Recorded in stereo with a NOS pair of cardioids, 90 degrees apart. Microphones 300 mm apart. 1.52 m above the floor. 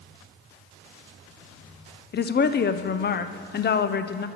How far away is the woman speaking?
About 0.7 m.